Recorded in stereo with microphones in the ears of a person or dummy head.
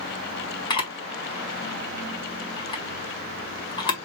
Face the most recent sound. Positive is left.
turn(degrees=30)  # may be behind; listen again after turning